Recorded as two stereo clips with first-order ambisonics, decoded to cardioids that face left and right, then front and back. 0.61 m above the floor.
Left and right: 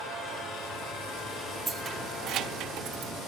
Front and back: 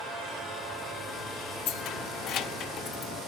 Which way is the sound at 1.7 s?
15° right.